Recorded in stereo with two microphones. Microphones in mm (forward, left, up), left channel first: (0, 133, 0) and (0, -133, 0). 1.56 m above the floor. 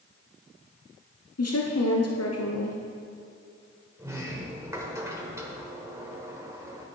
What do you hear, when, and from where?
1.4 s a woman speaking: 65° left (ahead or behind), 0.8 m
4.0 s a sliding door: 10° right (ahead or behind), 1.3 m